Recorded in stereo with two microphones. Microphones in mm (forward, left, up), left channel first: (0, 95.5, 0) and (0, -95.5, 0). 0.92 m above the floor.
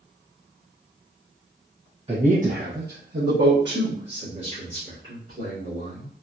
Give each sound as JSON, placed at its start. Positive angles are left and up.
{"t": 2.1, "sound": "a man speaking", "side_deg": -30, "distance_m": 0.7}